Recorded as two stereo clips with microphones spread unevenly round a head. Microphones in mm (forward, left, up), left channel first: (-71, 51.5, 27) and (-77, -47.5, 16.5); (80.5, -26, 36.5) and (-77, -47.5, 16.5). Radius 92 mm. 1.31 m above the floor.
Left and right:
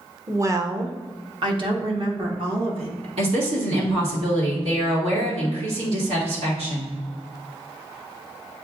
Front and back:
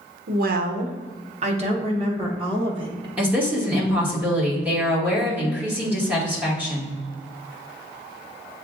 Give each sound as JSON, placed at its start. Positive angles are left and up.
{"t": 0.3, "sound": "a woman speaking", "azimuth_deg": -155, "distance_m": 0.7}
{"t": 3.2, "sound": "a woman speaking", "azimuth_deg": -90, "distance_m": 1.8}